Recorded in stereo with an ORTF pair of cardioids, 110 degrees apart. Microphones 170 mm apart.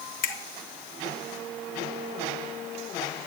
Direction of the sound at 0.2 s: 60° left.